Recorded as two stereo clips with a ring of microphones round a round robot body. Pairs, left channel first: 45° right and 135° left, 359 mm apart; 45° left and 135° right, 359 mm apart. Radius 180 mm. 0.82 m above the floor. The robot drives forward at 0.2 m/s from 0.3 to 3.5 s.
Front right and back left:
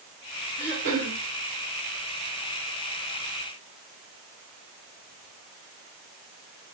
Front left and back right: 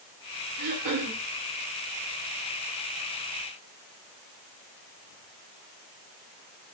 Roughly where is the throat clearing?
Right.